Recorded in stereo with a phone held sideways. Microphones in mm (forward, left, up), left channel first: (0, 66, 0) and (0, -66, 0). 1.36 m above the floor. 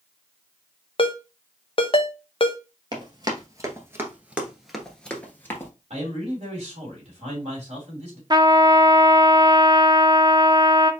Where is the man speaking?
50° right (ahead or behind), 2.5 m.